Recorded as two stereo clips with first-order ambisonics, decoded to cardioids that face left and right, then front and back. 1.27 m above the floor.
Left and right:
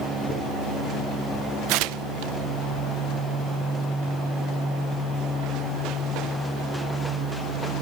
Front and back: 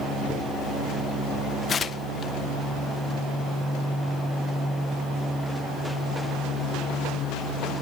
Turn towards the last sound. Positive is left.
turn(degrees=-70)